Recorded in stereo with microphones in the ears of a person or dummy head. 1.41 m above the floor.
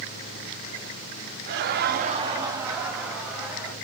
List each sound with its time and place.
1.5 s laughter: 55° right (ahead or behind), 0.5 m; by 3.7 s centre (ahead or behind), 1.5 m